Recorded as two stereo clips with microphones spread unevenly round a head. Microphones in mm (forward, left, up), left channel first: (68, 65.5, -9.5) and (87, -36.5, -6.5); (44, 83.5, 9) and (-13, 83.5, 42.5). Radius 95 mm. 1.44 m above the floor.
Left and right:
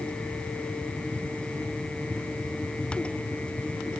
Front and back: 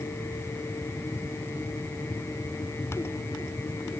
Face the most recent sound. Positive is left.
No sound to turn to.